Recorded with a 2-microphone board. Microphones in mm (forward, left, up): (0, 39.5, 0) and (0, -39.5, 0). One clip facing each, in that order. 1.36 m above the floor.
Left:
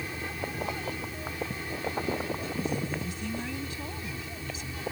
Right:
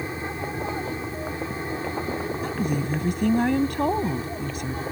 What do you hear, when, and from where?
0.0 s an aircraft: 30° right (ahead or behind); by 4.9 s 35° right (ahead or behind)
2.4 s a woman speaking: 60° right (ahead or behind)